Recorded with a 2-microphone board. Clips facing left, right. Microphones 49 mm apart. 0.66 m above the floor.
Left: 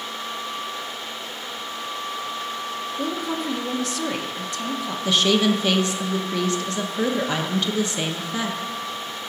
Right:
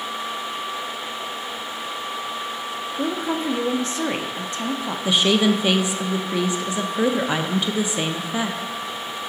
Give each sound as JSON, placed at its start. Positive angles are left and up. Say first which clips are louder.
{"t": 3.0, "sound": "a woman speaking", "louder": "right 3 dB", "side_deg": -30, "distance_m": 0.5}
{"t": 5.0, "sound": "a woman speaking", "louder": "right 1 dB", "side_deg": -15, "distance_m": 0.6}